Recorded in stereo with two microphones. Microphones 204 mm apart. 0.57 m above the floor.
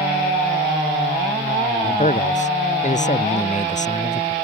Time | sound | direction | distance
1.8 | a man speaking | 35° left (ahead or behind) | ?